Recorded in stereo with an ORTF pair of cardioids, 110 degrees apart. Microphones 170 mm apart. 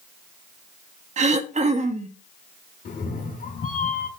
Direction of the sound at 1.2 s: 40° right.